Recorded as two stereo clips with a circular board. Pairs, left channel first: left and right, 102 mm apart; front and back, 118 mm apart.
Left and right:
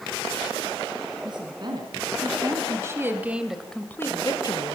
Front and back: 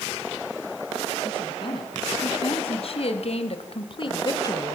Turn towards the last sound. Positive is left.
turn(degrees=65)